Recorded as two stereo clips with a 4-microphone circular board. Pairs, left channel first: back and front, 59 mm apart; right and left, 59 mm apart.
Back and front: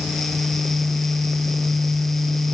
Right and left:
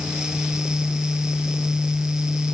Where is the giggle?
No giggle in this recording.